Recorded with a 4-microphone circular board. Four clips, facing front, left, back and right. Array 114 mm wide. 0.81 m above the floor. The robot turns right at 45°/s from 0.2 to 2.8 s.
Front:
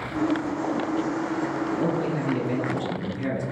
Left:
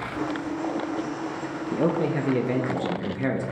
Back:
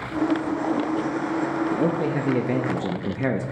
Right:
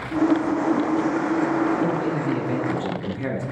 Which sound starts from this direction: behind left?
A man speaking, at 1.7 s.